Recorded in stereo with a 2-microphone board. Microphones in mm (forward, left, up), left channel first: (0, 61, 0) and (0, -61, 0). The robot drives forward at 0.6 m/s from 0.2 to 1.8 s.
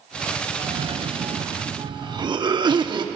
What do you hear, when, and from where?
0.6 s a cough: 45° right (ahead or behind), 0.7 m; by 3.0 s 40° right (ahead or behind), 0.8 m